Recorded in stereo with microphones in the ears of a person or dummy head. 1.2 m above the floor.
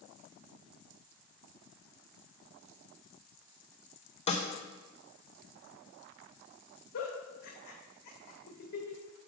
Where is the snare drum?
30° left (ahead or behind), 0.7 m.